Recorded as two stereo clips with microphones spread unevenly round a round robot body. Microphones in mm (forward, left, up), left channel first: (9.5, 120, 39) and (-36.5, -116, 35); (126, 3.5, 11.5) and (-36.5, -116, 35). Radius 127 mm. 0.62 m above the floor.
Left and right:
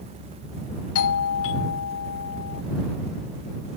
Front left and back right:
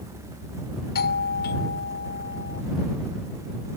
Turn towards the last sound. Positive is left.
turn(degrees=65)